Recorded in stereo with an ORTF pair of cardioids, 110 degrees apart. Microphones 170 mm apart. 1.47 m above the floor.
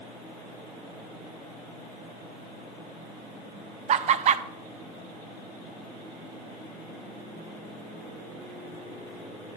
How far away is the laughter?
About 0.6 m.